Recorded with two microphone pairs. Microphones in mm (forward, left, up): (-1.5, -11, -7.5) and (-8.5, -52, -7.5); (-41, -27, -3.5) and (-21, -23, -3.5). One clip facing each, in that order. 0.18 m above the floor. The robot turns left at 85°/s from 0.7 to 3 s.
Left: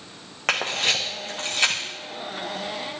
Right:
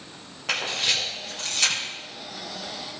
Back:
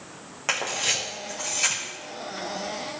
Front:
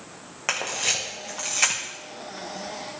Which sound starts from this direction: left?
A camera shutter, at 0.5 s.